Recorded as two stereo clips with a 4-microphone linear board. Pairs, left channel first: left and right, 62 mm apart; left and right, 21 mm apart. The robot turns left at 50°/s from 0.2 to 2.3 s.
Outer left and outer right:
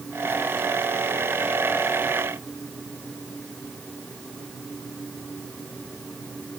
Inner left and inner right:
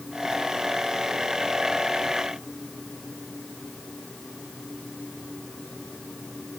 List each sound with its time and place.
Only background noise.